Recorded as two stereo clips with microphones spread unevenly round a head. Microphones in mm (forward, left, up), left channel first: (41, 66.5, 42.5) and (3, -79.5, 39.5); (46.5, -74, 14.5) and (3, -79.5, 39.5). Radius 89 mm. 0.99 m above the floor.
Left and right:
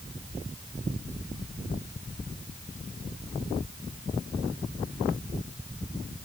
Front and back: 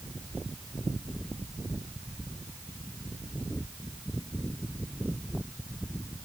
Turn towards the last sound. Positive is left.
No sound to turn to.